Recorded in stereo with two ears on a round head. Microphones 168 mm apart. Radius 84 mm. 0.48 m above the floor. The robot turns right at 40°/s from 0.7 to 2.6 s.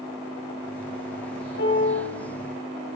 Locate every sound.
1.6 s a piano: 65° left (ahead or behind), 6.5 m; by 2.0 s 45° left (ahead or behind), 6.5 m